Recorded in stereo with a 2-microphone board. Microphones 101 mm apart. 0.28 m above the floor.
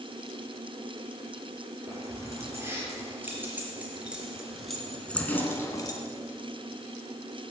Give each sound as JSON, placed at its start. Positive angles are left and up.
{"t": 1.9, "sound": "keys jangling", "side_deg": -30, "distance_m": 4.5}